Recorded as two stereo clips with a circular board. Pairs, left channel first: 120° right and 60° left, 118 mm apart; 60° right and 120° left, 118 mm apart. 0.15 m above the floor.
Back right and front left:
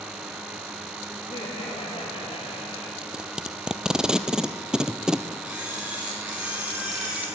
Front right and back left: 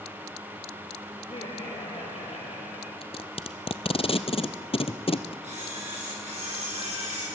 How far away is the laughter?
About 5 m.